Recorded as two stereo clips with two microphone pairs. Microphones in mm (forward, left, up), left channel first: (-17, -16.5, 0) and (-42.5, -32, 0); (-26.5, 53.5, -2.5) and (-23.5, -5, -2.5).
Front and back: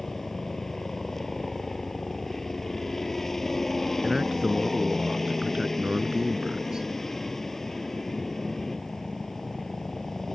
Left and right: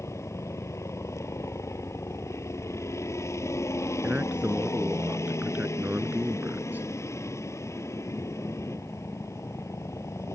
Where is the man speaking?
100° right.